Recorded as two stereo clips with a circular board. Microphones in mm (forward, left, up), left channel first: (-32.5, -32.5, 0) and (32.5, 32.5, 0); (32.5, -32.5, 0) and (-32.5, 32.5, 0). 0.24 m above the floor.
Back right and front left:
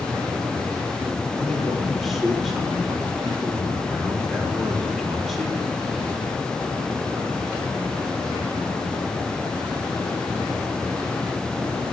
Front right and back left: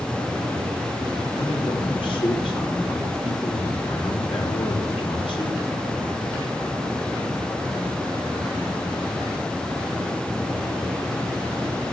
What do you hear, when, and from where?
1.4 s a man speaking: 45° right, 6.5 m